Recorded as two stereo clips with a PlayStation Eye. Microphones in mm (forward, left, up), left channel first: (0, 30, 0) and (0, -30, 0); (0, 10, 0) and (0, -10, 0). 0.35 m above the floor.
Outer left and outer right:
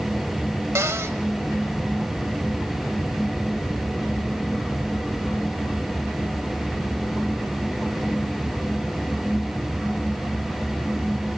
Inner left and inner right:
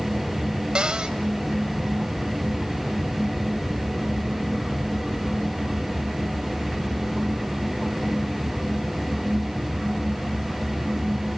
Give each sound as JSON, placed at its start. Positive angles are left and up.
{"t": 0.8, "sound": "a cupboard door", "side_deg": -50, "distance_m": 1.2}